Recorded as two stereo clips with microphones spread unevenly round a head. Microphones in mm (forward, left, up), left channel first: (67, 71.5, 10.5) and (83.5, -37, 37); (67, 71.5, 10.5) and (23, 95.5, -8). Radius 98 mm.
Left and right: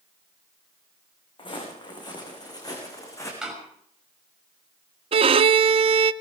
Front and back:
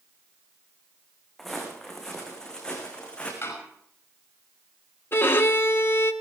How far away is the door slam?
About 5.5 m.